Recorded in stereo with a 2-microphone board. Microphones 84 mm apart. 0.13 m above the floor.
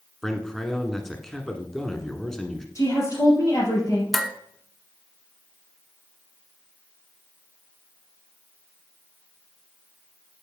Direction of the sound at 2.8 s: 40° left (ahead or behind).